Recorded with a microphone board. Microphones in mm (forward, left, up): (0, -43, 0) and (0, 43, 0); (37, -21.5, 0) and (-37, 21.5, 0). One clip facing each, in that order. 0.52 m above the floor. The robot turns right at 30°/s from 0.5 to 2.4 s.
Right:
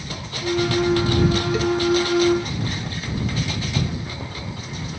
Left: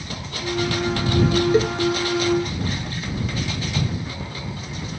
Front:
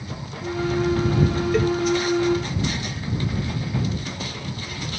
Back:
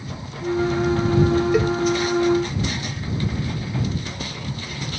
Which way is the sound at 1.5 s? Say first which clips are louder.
Left 2 dB, back 1 dB; 75° left.